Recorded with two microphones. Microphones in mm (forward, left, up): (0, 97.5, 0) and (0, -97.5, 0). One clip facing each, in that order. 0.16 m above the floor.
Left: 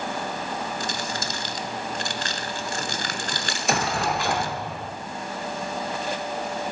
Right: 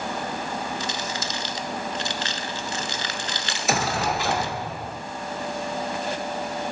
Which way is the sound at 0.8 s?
50° left (ahead or behind).